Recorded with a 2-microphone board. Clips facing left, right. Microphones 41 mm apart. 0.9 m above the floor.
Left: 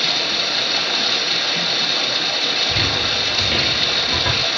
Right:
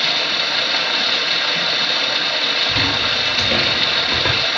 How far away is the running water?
About 1.8 m.